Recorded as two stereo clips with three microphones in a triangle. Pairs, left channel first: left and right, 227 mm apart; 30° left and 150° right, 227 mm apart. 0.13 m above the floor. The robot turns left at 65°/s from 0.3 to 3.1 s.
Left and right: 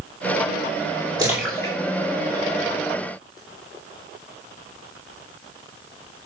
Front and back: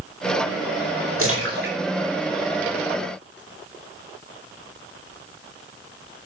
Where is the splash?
165° right, 7 m; by 3.4 s 70° left, 7 m.